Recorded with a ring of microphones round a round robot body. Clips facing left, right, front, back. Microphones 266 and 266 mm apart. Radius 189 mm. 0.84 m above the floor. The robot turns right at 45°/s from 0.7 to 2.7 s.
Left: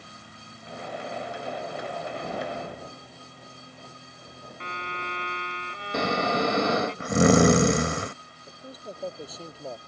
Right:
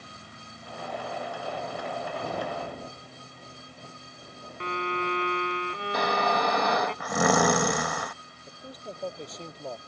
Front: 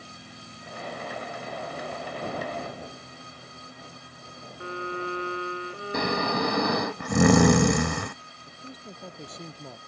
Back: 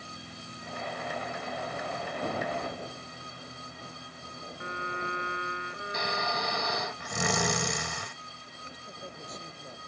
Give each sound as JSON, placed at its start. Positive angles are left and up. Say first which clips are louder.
{"t": 4.6, "sound": "a violin", "louder": "right 9 dB, front 7 dB", "azimuth_deg": -65}
{"t": 5.9, "sound": "snoring", "louder": "left 3 dB, front 9 dB", "azimuth_deg": 25}
{"t": 8.5, "sound": "a man speaking", "louder": "left 1 dB, front 7 dB", "azimuth_deg": 5}